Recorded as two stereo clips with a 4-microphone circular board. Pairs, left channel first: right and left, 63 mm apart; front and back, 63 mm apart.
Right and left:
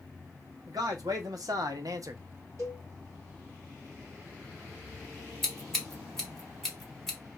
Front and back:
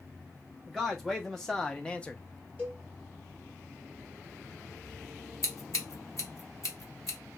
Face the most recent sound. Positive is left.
turn(degrees=-5)